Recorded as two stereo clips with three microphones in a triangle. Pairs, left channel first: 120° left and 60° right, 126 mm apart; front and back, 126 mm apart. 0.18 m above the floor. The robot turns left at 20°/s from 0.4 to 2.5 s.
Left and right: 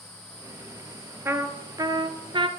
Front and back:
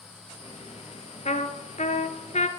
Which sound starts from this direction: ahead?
A trumpet, at 1.2 s.